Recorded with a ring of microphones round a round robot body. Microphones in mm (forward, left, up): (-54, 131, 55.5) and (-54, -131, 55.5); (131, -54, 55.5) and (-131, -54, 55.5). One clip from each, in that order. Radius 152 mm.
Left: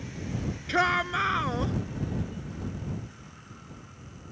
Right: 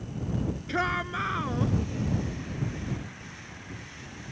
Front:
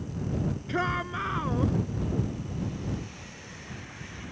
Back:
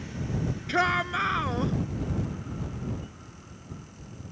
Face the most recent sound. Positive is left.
turn(degrees=130)